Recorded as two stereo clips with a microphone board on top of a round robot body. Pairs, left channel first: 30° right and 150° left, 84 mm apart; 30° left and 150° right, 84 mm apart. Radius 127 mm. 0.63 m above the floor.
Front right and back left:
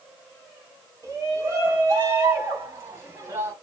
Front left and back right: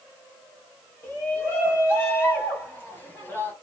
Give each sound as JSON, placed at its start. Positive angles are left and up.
{"t": 1.0, "sound": "a shout", "azimuth_deg": 95, "distance_m": 5.5}